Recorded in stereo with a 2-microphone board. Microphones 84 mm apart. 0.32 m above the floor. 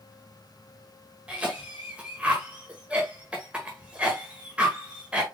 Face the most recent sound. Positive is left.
turn(degrees=-15)  # may be behind; listen again after turning